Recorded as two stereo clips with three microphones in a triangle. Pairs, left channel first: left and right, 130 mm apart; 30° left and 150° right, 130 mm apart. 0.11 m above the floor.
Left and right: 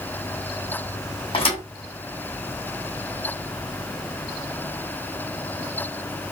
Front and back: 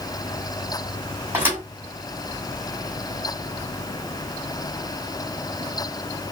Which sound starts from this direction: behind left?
A thud, at 1.3 s.